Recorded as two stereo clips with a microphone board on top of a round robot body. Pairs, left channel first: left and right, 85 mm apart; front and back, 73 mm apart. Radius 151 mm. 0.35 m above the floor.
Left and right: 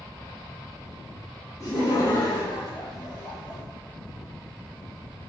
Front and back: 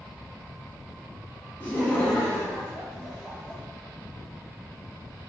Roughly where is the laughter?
Ahead left.